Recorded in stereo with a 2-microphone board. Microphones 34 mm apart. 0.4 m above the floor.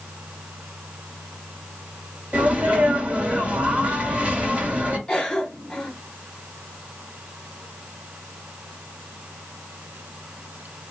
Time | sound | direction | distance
2.3 | a sneeze | 40° right (ahead or behind) | 1.2 m
5.1 | a cough | 25° left (ahead or behind) | 1.5 m